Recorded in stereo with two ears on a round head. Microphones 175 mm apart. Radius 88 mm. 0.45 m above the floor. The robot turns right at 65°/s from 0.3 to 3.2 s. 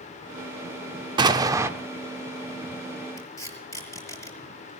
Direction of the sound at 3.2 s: 20° left (ahead or behind).